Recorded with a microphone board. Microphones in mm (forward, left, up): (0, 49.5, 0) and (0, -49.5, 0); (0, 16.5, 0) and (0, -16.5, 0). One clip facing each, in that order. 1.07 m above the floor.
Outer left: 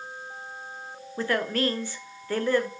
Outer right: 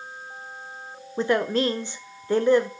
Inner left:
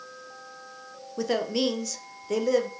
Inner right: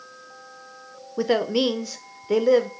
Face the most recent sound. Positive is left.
turn(degrees=-20)  # may be behind; listen again after turning